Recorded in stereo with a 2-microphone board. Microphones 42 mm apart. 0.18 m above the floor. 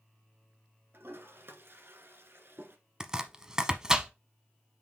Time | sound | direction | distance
0.9 | a toilet flushing | 65° right (ahead or behind) | 1.2 m
3.0 | chopping | 15° right (ahead or behind) | 0.7 m